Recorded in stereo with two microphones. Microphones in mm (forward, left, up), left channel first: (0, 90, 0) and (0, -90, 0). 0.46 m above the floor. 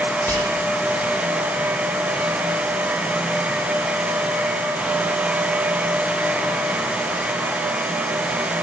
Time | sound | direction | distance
0.3 | whispering | 10° left (ahead or behind) | 1.6 m